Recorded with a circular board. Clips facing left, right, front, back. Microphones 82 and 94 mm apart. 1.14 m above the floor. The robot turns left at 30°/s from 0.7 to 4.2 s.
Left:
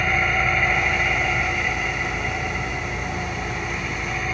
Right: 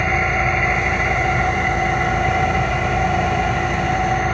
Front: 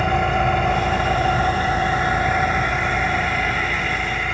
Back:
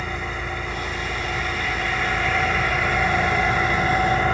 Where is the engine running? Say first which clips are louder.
Right 3 dB, front 11 dB; 30° right, 2.5 m; by 4.3 s 135° right, 2.5 m.